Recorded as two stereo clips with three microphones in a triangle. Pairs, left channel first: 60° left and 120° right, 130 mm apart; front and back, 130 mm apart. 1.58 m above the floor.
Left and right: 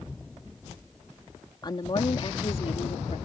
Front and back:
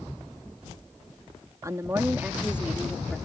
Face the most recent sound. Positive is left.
turn(degrees=90)